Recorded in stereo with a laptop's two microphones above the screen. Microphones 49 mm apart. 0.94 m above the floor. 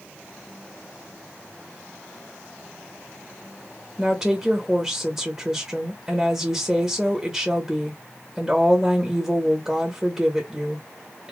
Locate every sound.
4.0 s a woman speaking: 20° right (ahead or behind), 1.0 m